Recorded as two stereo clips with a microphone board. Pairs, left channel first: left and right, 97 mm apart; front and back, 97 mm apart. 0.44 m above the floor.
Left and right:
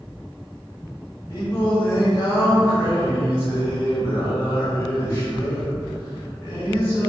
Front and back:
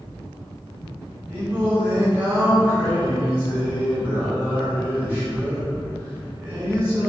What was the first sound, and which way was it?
Singing, 130° left.